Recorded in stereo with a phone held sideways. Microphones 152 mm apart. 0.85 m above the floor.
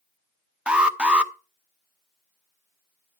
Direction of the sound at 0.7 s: 5° right (ahead or behind).